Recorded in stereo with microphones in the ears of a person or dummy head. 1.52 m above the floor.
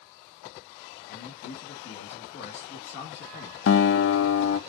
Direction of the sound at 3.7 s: 70° left (ahead or behind).